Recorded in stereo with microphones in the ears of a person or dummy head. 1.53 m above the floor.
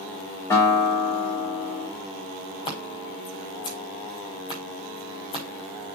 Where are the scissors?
25° left (ahead or behind), 5.5 m.